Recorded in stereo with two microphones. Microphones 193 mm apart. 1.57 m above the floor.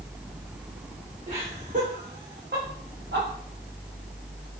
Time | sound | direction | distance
1.3 | laughter | 30° right (ahead or behind) | 1.4 m